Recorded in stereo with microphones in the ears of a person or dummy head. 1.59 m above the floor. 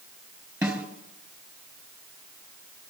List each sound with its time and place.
0.6 s a snare drum: 15° right (ahead or behind), 4.5 m